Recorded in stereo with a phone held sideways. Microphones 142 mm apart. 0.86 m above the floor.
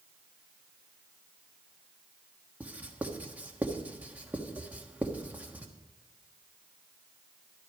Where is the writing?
10° right (ahead or behind), 1.3 m.